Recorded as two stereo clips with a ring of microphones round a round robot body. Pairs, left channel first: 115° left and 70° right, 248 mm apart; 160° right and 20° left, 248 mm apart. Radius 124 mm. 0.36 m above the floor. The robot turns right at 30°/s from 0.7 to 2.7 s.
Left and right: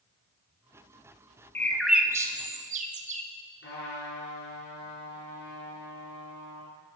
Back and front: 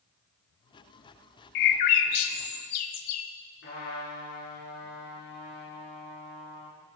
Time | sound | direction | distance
1.6 | a bird | 165° right | 0.6 m
3.6 | a trumpet | 160° left | 4.5 m